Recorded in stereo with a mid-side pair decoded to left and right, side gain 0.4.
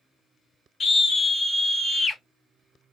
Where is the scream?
55° left, 2 m.